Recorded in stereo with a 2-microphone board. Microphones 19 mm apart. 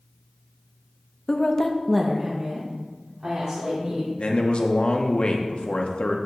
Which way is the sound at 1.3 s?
45° left (ahead or behind).